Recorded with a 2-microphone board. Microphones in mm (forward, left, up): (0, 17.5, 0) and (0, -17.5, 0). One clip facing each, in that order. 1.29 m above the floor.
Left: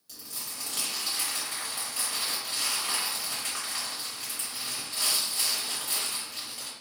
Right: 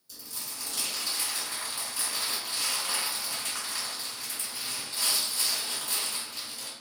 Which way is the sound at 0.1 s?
65° left (ahead or behind).